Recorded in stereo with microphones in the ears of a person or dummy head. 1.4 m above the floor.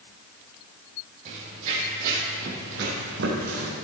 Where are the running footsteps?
40° right (ahead or behind), 2.5 m; by 3.7 s 65° right (ahead or behind), 3 m.